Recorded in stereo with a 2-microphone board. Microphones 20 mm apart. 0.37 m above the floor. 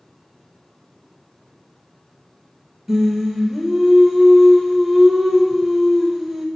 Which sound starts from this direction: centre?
Singing, at 2.9 s.